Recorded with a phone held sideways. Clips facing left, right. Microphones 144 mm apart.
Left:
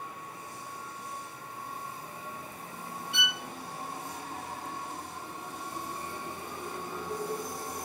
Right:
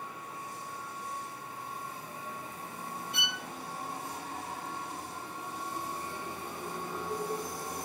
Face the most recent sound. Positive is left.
turn(degrees=-40)  # may be behind; listen again after turning